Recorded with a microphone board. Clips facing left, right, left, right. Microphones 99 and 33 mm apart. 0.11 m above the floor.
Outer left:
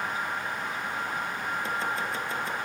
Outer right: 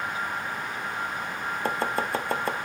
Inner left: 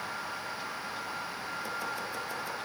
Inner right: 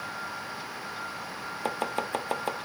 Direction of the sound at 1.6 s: 60° right (ahead or behind).